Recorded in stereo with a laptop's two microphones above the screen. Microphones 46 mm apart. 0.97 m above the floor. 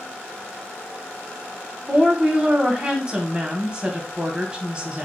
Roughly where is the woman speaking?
Centre.